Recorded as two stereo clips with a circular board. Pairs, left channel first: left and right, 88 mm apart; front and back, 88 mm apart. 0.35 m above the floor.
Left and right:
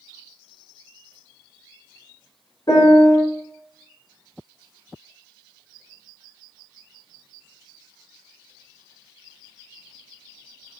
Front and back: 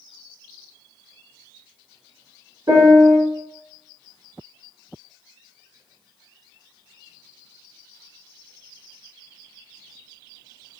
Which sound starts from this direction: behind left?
A piano, at 2.7 s.